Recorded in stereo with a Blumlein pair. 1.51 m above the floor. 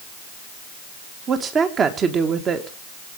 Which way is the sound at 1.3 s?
20° right.